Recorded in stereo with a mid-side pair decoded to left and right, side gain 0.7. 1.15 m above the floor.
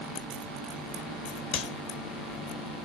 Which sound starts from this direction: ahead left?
A clap, at 1.5 s.